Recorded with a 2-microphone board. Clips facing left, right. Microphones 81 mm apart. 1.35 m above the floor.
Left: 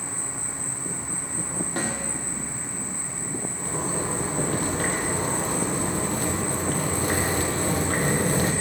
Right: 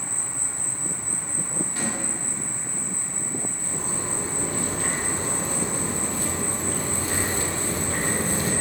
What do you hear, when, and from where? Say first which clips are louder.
0.0 s an insect: left 1 dB; 5° left (ahead or behind), 1.0 m
1.8 s a snare drum: left 2 dB; 55° left (ahead or behind), 1.8 m
3.6 s a zipper: left 4 dB; 60° left (ahead or behind), 1.0 m